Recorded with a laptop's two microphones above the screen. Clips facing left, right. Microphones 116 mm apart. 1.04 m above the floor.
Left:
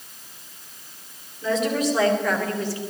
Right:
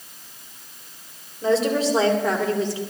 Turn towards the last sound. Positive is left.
turn(degrees=-20)  # may be behind; listen again after turning